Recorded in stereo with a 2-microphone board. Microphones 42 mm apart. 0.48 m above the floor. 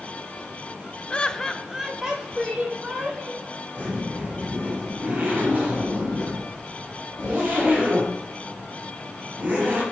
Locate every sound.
1.1 s laughter: 25° left (ahead or behind), 0.9 m; by 3.5 s 25° right (ahead or behind), 3 m
3.8 s a zipper: 35° right (ahead or behind), 7.5 m